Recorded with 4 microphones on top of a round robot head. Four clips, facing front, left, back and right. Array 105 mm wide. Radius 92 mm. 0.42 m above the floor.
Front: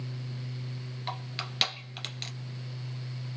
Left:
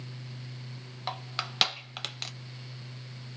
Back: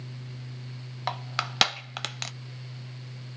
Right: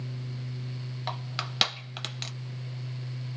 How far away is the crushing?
About 0.6 m.